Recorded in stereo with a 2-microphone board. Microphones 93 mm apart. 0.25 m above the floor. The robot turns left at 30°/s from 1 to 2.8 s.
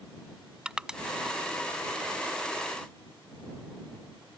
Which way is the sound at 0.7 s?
10° right (ahead or behind).